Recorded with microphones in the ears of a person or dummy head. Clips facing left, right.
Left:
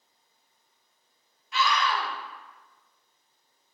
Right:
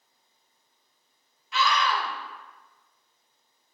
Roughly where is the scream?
Right.